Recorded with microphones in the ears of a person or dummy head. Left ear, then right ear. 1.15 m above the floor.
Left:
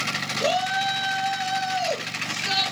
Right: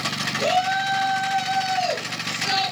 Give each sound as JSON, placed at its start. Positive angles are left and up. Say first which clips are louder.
{"t": 0.4, "sound": "a shout", "louder": "right 2 dB", "side_deg": -5, "distance_m": 7.5}